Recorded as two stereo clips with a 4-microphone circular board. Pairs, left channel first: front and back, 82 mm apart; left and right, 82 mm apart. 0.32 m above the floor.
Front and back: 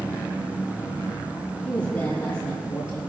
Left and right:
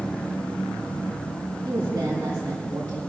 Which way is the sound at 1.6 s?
40° right.